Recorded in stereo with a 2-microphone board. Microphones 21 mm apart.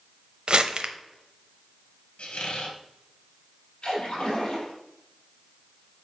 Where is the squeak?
75° left (ahead or behind), 1.7 m.